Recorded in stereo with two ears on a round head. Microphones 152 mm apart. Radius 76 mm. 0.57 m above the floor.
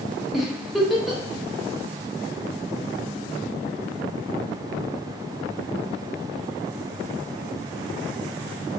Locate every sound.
0.3 s a giggle: centre (ahead or behind), 0.5 m